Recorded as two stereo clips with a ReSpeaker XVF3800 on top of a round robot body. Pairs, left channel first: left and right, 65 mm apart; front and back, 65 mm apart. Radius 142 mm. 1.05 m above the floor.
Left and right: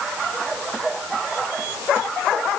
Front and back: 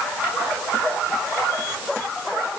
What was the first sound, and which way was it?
Only background noise.